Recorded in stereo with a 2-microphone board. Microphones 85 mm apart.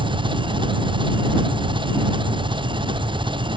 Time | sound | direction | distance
0.0 | an engine running | 85° right | ?